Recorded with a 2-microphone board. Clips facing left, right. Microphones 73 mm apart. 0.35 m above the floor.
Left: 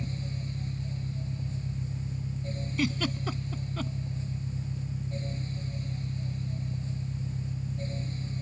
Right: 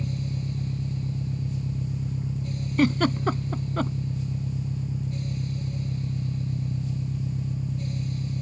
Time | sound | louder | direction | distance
0.0 | an engine running | right 5 dB | 65° right (ahead or behind) | ?
2.8 | a giggle | right 9 dB | 50° right (ahead or behind) | ?